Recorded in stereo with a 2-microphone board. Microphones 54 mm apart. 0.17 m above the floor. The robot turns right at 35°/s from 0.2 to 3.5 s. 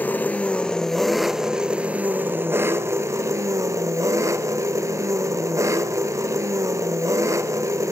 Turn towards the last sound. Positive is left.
turn(degrees=-100)